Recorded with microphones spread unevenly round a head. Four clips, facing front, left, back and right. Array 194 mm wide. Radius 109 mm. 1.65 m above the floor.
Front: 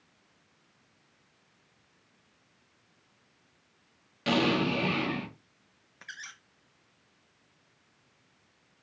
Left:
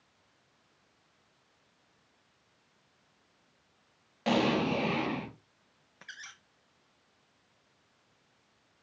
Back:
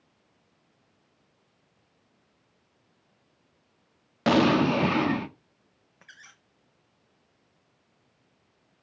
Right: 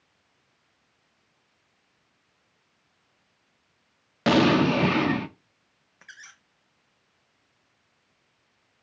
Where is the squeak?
135° left, 0.7 m.